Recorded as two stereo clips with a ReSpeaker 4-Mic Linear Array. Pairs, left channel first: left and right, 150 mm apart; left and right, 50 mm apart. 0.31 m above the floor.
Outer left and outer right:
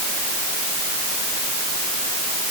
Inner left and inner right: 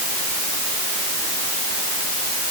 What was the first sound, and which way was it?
Only background noise.